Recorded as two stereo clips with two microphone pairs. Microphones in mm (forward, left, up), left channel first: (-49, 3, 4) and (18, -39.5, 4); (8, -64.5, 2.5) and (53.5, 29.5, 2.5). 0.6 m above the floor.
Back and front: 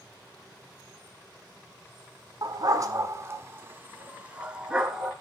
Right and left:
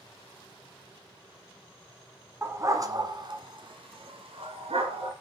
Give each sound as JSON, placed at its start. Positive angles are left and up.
{"t": 2.4, "sound": "a dog barking", "azimuth_deg": 0, "distance_m": 1.3}